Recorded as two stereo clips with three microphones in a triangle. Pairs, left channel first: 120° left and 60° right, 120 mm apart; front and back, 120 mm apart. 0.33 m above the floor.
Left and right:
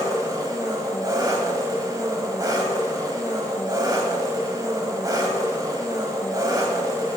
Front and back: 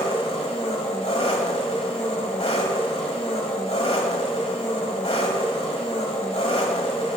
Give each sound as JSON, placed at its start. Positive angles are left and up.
{"t": 0.0, "sound": "an engine running", "azimuth_deg": -10, "distance_m": 1.3}